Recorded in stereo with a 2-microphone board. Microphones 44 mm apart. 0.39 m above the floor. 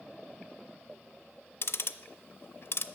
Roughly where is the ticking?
Left.